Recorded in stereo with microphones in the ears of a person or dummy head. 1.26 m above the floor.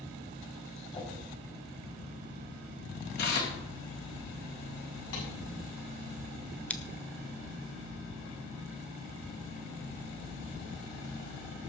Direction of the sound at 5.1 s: 85° left.